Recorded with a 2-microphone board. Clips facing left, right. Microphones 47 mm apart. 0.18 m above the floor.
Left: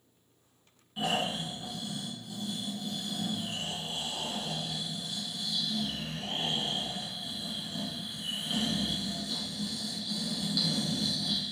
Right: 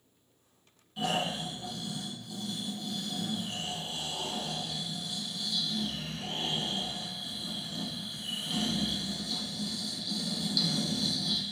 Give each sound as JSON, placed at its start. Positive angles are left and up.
{"t": 1.0, "sound": "snoring", "side_deg": 15, "distance_m": 1.5}